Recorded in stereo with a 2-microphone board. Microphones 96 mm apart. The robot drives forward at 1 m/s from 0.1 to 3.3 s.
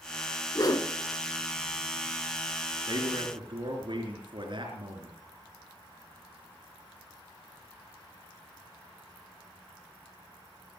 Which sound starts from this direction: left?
A whoosh, at 0.6 s.